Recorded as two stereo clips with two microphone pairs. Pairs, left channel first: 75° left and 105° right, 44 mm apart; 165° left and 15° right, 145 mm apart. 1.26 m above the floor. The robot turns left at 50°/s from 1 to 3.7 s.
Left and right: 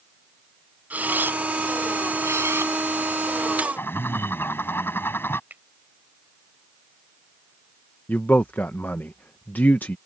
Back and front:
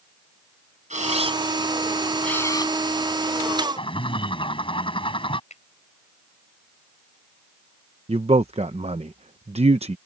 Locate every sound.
0.9 s a camera shutter: 50° right; by 3.7 s 175° left
3.8 s a bird: 110° left
5.5 s a finger snap: 160° right
8.1 s a man speaking: 25° left